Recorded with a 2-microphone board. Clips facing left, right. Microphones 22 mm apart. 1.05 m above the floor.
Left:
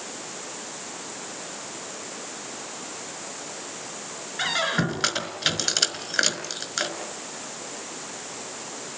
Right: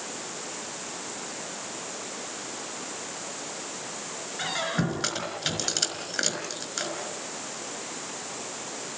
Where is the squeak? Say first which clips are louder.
Left 5 dB; 25° left (ahead or behind), 4.5 m.